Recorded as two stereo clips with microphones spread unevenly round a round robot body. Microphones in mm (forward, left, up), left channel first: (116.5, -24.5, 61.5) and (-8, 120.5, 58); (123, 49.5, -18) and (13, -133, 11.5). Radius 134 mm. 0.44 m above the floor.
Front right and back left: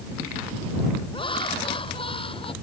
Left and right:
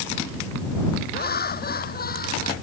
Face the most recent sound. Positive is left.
turn(degrees=15)